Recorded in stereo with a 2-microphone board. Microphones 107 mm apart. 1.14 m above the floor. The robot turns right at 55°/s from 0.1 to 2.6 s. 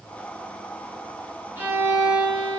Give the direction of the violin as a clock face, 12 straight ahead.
5 o'clock.